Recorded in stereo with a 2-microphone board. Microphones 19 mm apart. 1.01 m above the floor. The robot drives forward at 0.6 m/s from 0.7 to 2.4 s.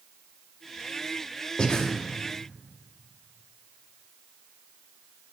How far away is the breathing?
About 0.6 m.